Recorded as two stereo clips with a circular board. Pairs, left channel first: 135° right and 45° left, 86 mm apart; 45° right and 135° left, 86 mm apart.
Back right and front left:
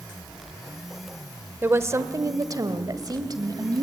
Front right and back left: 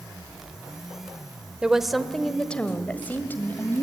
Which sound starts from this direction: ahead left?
A woman speaking, at 1.6 s.